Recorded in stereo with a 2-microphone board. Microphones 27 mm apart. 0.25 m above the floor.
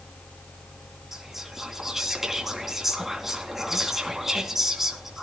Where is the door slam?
No door slam in this recording.